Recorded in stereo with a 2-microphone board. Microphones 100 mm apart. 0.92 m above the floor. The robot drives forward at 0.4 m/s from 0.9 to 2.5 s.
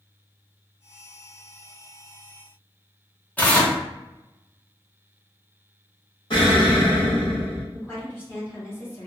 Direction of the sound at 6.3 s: 60° left (ahead or behind).